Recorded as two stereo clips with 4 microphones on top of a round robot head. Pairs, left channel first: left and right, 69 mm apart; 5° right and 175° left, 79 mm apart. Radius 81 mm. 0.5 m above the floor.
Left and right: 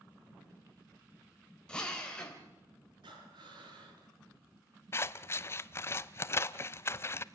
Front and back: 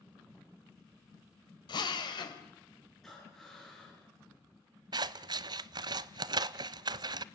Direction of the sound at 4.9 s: 145° left.